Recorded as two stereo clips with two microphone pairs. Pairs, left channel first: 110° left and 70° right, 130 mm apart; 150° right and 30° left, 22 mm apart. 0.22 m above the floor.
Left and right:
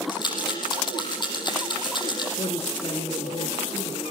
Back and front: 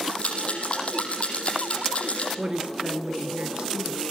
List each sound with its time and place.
0.1 s a rattle: 165° left, 6.5 m
2.4 s a woman speaking: 70° left, 3.5 m